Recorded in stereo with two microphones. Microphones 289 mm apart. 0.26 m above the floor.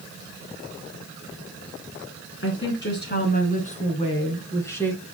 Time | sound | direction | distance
2.4 | a woman speaking | 40° left (ahead or behind) | 3 m